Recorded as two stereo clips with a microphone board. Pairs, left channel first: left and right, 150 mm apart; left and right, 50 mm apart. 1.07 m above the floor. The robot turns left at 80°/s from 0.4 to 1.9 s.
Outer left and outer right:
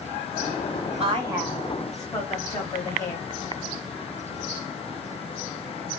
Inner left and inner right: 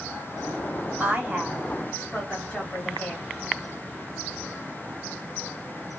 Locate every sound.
1.0 s a woman speaking: 135° right, 1.4 m; by 3.2 s 155° left, 1.4 m